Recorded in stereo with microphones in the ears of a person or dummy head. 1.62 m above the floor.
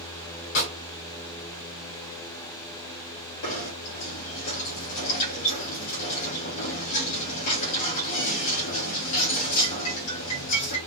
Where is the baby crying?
I don't hear a baby crying.